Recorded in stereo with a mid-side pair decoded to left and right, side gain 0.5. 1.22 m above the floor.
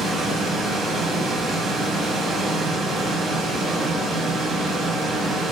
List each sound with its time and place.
0.0 s a machine running: 45° right, 0.9 m